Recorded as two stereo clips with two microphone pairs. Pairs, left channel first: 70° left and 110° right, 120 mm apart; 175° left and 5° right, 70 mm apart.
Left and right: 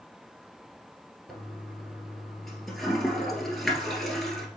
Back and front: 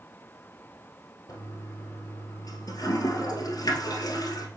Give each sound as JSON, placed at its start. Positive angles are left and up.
{"t": 1.3, "sound": "a toilet flushing", "azimuth_deg": 160, "distance_m": 1.5}